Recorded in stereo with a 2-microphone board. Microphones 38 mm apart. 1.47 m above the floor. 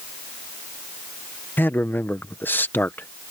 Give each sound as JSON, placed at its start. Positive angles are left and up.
{"t": 1.6, "sound": "a man speaking", "side_deg": 60}